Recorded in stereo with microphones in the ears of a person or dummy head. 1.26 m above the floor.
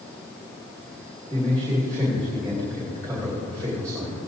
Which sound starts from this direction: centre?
A man speaking, at 1.3 s.